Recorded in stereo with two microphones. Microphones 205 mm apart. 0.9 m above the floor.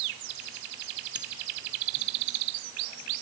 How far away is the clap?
No clap in this recording.